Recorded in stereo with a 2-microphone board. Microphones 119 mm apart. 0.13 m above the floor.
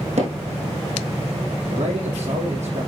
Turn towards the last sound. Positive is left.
turn(degrees=-75)  # may be behind; listen again after turning